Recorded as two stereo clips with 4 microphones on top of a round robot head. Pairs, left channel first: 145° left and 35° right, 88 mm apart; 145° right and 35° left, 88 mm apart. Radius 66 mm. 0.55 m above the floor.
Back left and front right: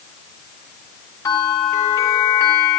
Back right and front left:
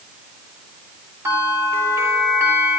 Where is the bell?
95° left, 5 m.